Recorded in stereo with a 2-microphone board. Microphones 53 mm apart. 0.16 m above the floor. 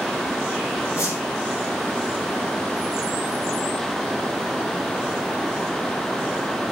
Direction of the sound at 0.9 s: 65° left (ahead or behind).